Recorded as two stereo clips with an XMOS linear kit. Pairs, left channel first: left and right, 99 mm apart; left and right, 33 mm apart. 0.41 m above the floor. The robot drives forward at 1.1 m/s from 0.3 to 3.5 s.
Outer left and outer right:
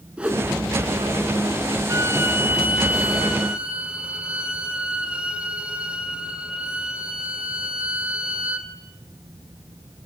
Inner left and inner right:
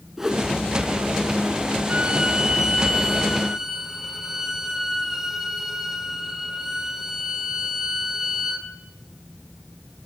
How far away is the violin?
About 0.9 m.